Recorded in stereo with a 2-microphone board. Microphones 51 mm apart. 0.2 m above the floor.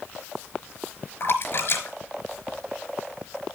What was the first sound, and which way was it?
A splash, 50° left (ahead or behind).